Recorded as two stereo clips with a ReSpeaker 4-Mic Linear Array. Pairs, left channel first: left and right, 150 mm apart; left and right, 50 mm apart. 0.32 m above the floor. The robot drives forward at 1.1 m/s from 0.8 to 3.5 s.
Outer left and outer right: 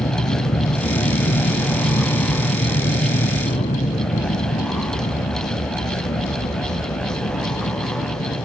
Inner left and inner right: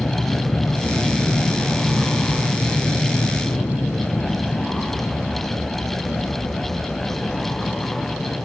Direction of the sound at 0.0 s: 65° left (ahead or behind).